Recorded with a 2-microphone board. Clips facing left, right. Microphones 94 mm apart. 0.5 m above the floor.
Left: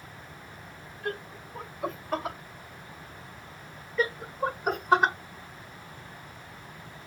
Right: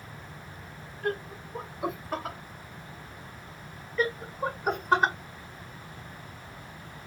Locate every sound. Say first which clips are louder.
1.0 s laughter: right 4 dB; 45° right (ahead or behind), 1.8 m; by 2.4 s 10° left (ahead or behind), 1.4 m
4.0 s laughter: even; 5° left (ahead or behind), 1.2 m